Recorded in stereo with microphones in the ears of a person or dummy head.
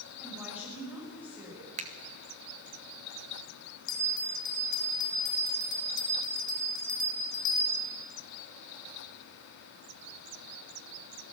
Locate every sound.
0.2 s a woman speaking: 5° right (ahead or behind), 6 m
1.8 s a finger snap: 35° right (ahead or behind), 1.3 m
3.9 s a bell: 85° left, 5.5 m